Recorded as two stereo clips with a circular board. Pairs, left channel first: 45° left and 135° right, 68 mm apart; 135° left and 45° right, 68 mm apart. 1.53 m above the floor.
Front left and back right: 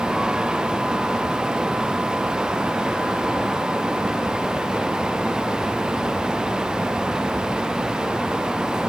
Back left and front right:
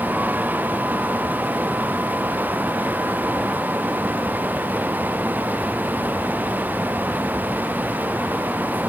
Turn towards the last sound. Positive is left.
No sound to turn to.